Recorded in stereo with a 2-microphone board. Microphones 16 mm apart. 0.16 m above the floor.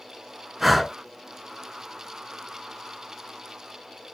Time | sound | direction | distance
0.6 | breathing | 10° right (ahead or behind) | 0.8 m